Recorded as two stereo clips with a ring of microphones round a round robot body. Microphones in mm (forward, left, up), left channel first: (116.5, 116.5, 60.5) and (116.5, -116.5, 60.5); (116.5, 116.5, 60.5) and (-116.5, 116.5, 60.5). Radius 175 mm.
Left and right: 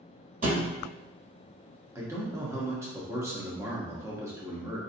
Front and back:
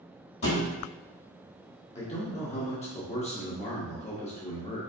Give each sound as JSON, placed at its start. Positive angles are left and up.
{"t": 0.4, "sound": "a thud", "azimuth_deg": -35, "distance_m": 1.6}
{"t": 1.9, "sound": "a man speaking", "azimuth_deg": -25, "distance_m": 1.1}